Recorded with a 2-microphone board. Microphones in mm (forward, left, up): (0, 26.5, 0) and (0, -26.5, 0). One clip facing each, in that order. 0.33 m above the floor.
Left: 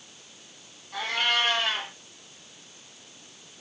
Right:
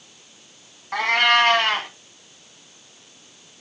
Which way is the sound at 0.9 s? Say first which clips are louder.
Right 9 dB; 75° right (ahead or behind).